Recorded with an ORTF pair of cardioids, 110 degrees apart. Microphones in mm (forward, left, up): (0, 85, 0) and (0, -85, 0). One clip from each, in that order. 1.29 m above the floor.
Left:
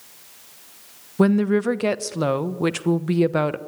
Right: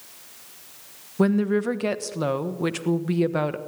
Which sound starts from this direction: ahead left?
A woman speaking, at 1.2 s.